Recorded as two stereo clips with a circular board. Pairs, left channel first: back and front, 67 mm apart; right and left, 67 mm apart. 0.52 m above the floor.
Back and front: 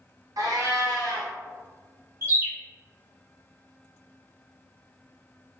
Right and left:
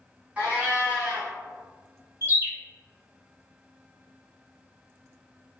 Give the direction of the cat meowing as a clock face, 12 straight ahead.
11 o'clock.